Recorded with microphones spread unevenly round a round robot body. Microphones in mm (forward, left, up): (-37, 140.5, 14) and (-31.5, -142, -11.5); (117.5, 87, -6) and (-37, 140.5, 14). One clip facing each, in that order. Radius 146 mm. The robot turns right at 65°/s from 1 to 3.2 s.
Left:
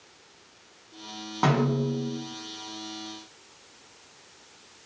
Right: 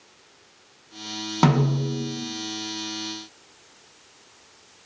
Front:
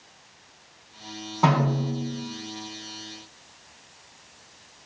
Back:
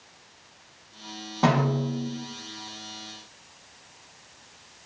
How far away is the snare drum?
About 0.5 m.